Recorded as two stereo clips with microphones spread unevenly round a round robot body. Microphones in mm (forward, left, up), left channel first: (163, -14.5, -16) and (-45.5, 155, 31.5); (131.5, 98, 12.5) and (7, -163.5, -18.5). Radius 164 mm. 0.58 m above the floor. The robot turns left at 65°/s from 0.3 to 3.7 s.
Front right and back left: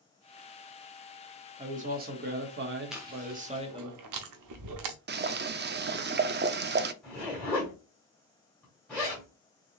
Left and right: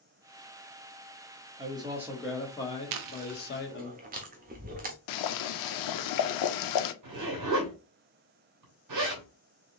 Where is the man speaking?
150° right, 1.1 m; by 3.9 s 70° left, 1.1 m.